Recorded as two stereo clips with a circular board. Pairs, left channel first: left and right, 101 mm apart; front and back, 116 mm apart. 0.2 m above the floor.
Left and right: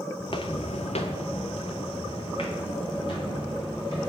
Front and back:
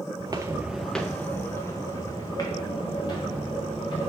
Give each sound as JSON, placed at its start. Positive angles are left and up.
{"t": 0.2, "sound": "footsteps", "azimuth_deg": 135, "distance_m": 0.7}